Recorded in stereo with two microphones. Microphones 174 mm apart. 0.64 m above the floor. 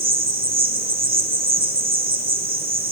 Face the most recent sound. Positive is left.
turn(degrees=-60)  # may be behind; listen again after turning